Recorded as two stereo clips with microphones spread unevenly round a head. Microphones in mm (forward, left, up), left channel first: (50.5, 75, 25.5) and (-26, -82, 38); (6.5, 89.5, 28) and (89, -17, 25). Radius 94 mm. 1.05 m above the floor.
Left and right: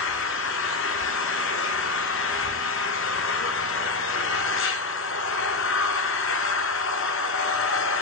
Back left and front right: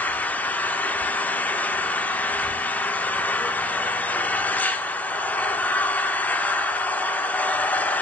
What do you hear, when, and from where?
0.0 s an engine running: 50° left, 1.3 m